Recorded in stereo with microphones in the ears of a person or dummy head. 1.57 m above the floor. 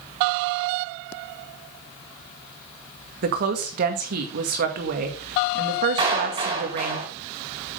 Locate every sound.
3.2 s a woman speaking: 55° right (ahead or behind), 1.8 m
6.0 s a clap: 30° right (ahead or behind), 5 m